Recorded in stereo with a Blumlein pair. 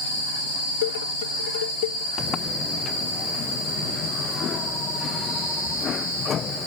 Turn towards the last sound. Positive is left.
turn(degrees=25)